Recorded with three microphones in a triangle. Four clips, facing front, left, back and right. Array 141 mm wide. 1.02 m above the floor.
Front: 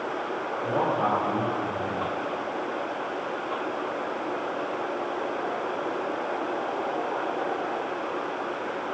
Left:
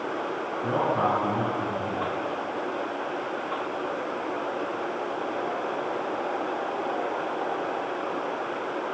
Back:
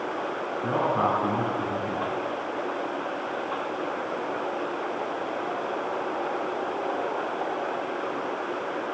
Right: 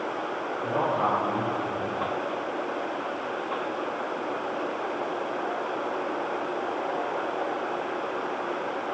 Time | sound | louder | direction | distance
0.6 | a man speaking | left 1 dB, back 1 dB | 155° left | 6.5 m